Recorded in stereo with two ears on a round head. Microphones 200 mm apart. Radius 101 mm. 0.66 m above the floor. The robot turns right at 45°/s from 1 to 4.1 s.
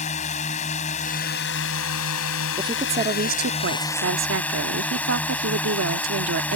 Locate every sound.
0.0 s a drone: 35° left; by 6.6 s 175° left
2.6 s a woman speaking: 160° right; by 6.6 s 95° right